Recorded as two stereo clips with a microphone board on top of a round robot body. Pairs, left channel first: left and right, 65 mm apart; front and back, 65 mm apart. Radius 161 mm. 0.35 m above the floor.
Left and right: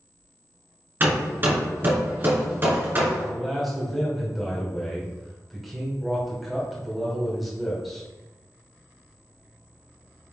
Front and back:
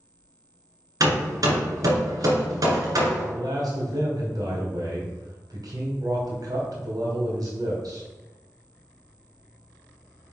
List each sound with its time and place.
1.0 s hammering: 150° right, 2 m
3.2 s a man speaking: straight behind, 2.5 m